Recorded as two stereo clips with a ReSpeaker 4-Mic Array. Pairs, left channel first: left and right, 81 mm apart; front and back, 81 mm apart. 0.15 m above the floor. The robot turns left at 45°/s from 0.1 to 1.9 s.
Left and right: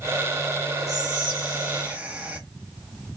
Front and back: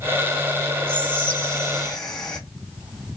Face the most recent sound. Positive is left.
turn(degrees=-70)